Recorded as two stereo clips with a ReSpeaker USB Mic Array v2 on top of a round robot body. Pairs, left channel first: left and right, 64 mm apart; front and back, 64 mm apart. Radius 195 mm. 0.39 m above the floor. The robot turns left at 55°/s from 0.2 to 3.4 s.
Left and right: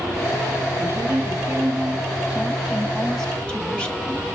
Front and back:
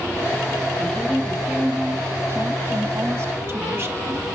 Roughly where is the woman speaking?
Ahead right.